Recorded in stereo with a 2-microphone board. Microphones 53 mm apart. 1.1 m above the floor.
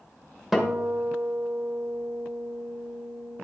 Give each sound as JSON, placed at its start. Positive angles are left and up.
{"t": 0.5, "sound": "a guitar", "side_deg": -5, "distance_m": 1.4}